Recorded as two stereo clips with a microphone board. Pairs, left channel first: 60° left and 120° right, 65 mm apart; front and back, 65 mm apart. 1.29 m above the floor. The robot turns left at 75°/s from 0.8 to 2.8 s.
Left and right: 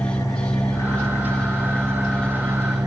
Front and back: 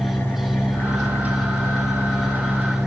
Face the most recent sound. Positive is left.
turn(degrees=-95)